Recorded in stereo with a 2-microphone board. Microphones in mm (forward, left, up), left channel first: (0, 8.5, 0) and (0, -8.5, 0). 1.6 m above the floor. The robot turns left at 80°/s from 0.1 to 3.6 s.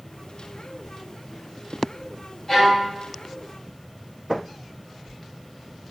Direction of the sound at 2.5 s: 165° left.